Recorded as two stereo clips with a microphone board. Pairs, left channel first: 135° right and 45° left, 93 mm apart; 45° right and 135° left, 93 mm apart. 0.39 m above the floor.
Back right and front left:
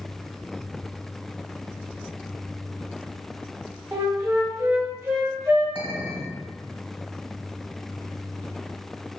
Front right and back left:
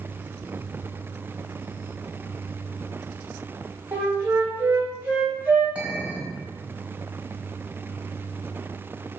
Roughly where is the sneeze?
No sneeze in this recording.